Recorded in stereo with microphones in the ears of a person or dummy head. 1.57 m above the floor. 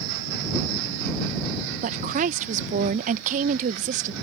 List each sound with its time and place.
1.8 s a woman speaking: 40° right (ahead or behind)